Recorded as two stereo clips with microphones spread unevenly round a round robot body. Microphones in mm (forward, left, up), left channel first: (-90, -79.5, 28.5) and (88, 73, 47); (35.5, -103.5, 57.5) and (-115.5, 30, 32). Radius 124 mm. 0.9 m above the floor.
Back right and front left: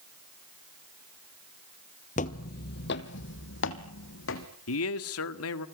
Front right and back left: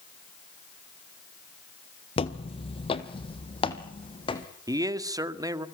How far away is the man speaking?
About 1.9 m.